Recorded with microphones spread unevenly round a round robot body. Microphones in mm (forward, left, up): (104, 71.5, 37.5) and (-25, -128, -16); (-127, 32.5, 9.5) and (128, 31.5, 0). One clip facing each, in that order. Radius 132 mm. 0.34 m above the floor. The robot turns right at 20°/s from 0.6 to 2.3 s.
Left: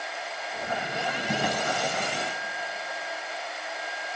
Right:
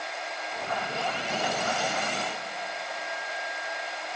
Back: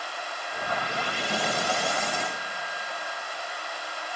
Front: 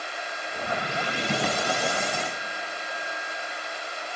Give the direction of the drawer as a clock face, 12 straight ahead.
11 o'clock.